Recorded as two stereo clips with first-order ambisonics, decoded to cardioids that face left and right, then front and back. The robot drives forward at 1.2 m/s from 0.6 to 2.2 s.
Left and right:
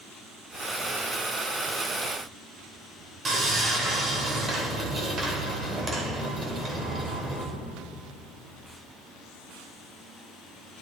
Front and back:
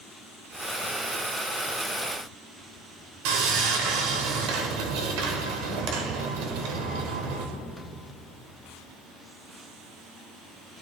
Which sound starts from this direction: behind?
Sawing, at 3.2 s.